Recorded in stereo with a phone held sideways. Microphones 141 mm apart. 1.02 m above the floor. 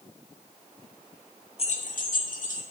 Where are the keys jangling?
45° left (ahead or behind), 0.5 m; by 2.6 s 65° left (ahead or behind), 1.2 m.